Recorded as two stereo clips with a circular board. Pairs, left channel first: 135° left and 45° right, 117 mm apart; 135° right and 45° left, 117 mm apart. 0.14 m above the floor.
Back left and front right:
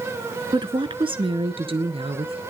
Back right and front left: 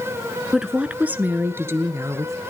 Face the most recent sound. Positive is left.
turn(degrees=-15)